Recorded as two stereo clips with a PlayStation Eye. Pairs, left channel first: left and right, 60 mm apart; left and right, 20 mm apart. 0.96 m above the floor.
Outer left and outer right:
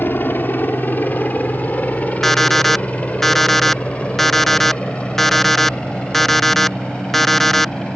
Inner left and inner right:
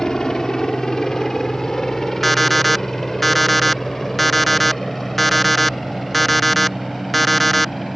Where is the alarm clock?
5° left (ahead or behind).